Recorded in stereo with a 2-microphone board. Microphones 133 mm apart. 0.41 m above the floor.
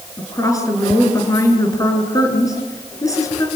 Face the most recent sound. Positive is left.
turn(degrees=25)  # may be behind; listen again after turning